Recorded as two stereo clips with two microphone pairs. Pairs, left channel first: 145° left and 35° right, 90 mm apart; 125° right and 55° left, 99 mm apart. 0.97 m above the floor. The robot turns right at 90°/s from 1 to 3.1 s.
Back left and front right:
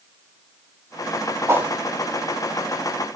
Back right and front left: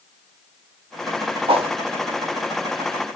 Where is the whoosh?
25° left, 1.1 m; by 1.7 s 45° left, 1.1 m.